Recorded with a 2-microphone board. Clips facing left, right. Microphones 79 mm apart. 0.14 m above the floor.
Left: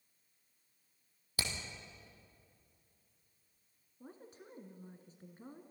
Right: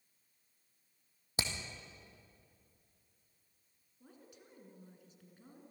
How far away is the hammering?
About 2.5 m.